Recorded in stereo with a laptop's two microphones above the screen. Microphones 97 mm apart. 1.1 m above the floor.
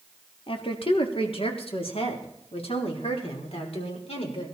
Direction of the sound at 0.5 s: 65° left (ahead or behind).